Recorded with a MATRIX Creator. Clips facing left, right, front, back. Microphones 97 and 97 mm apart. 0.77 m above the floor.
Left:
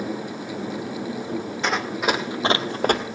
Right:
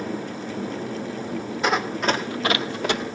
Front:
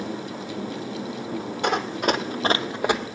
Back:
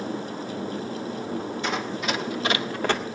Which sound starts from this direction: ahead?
Running footsteps, at 1.6 s.